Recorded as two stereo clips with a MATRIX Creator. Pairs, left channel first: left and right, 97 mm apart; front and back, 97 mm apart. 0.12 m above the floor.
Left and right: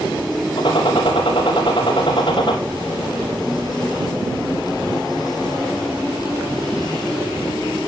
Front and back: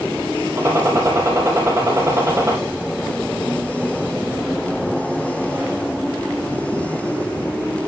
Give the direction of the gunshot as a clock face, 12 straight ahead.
8 o'clock.